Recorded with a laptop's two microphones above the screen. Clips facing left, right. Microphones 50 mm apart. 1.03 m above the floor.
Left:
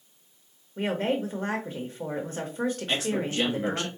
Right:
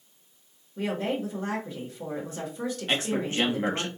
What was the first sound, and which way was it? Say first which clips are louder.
A woman speaking: left 2 dB; 40° left (ahead or behind).